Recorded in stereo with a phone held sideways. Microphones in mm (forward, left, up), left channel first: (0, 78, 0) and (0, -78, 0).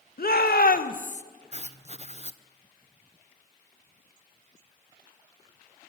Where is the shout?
75° left (ahead or behind), 2.0 m; by 1.2 s 45° left (ahead or behind), 1.3 m.